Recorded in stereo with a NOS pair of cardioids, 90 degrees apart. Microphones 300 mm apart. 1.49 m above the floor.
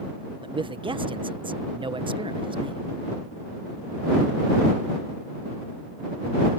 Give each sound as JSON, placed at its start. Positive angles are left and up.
{"t": 0.4, "sound": "a man speaking", "azimuth_deg": -15}